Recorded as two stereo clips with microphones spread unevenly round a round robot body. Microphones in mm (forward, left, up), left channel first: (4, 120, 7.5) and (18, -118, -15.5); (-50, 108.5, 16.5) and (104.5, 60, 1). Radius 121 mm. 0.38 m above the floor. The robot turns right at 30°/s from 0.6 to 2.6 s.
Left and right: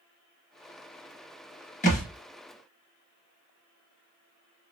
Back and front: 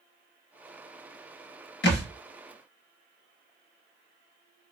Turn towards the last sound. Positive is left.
turn(degrees=180)